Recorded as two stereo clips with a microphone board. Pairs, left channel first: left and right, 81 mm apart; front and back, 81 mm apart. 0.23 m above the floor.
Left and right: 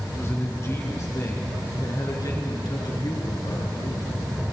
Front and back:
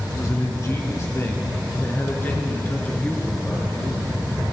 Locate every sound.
0.1 s a man speaking: 35° left, 2.5 m; by 4.1 s 75° left, 3.5 m